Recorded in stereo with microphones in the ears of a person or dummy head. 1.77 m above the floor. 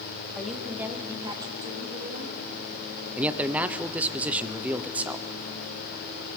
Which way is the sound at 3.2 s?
10° right (ahead or behind).